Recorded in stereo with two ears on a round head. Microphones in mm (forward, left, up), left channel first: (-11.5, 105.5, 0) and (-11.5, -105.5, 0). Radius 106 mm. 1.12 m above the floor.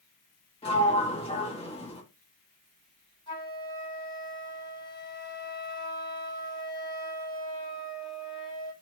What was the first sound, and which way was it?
A sliding door, 25° left (ahead or behind).